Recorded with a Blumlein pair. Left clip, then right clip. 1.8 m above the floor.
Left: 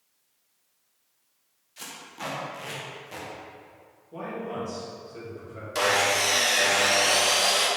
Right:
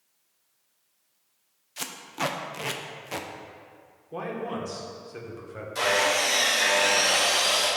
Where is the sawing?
25° left, 1.5 m.